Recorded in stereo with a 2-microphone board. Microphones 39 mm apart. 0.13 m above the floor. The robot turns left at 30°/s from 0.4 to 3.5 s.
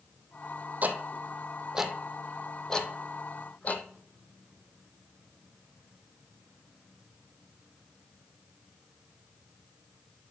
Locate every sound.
0.8 s ticking: 40° right (ahead or behind), 0.8 m; by 3.9 s 40° left (ahead or behind), 0.8 m